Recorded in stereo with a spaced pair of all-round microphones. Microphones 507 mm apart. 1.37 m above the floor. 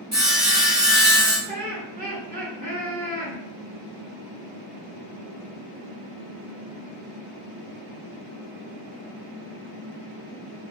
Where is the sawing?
15° right (ahead or behind), 1.3 m.